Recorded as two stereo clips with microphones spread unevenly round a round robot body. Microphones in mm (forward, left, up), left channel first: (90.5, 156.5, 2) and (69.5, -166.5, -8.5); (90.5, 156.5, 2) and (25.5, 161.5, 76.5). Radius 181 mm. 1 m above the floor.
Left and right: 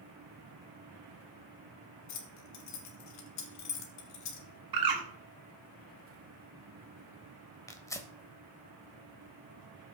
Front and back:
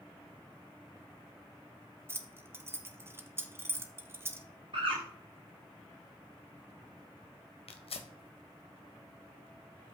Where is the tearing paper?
10° left, 1.2 m.